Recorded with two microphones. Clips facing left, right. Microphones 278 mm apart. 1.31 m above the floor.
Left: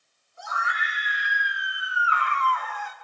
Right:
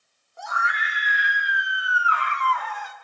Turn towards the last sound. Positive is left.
turn(degrees=-85)